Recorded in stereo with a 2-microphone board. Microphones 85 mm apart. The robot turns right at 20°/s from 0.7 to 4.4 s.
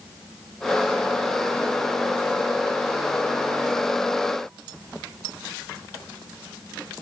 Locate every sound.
Only background noise.